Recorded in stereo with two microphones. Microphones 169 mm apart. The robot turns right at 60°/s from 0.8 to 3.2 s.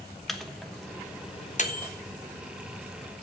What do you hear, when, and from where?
0.3 s a microwave: centre (ahead or behind), 1.0 m; by 1.9 s 55° left (ahead or behind), 1.0 m